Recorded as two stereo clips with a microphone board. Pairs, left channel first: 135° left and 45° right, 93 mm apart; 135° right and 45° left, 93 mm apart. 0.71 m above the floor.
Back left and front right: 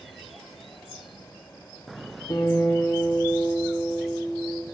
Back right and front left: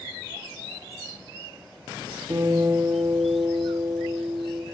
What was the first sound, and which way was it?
A guitar, 85° left.